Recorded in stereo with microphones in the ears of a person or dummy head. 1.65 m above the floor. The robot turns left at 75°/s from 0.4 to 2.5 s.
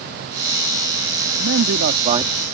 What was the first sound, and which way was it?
A man speaking, 95° right.